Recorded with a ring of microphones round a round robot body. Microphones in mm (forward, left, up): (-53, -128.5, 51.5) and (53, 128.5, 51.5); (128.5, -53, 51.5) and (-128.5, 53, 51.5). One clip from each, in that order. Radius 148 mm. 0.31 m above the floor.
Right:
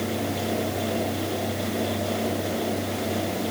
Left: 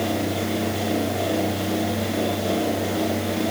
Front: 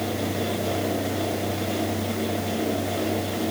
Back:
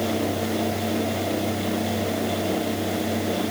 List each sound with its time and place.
Only background noise.